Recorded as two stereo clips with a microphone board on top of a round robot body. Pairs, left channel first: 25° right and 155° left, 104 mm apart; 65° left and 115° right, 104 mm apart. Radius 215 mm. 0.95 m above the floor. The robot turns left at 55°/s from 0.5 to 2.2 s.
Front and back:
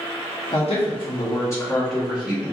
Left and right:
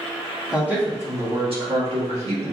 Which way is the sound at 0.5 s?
30° right.